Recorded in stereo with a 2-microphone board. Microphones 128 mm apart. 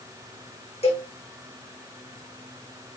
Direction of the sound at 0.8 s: 50° left (ahead or behind).